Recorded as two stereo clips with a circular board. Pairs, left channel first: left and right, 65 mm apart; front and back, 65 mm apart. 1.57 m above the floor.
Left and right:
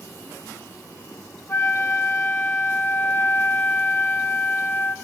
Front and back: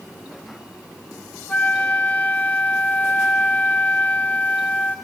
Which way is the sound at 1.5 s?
55° left.